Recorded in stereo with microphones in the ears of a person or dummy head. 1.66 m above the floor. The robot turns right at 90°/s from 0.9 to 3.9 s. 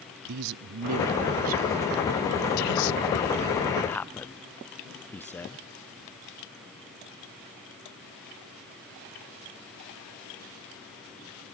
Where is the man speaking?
75° right (ahead or behind), 0.6 m; by 5.7 s 15° left (ahead or behind), 0.6 m.